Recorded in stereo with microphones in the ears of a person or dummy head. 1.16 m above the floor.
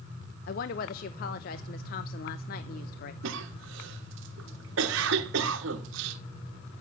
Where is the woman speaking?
50° left (ahead or behind), 0.8 m.